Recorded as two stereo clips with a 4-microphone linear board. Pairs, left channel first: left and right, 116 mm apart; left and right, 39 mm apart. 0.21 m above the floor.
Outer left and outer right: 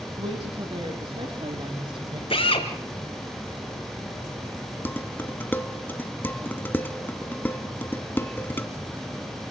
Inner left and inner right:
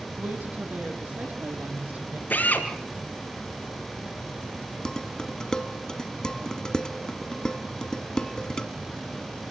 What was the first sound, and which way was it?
A woman speaking, 55° right (ahead or behind).